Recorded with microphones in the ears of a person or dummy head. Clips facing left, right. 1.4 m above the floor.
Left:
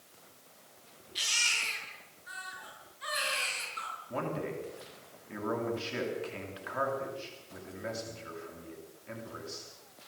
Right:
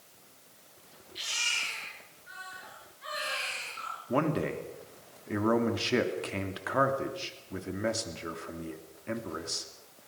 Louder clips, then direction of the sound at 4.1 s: Right 7 dB; 65° right (ahead or behind).